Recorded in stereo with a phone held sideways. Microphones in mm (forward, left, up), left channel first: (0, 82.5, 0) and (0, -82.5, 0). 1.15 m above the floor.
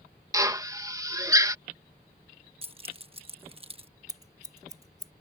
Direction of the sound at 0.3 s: 20° right (ahead or behind).